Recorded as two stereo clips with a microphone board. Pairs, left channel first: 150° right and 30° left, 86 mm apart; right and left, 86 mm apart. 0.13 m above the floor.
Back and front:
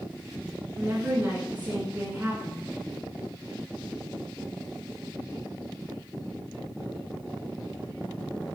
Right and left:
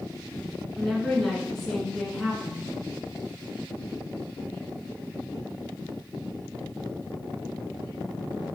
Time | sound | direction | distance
0.8 | a woman speaking | 5° right | 1.4 m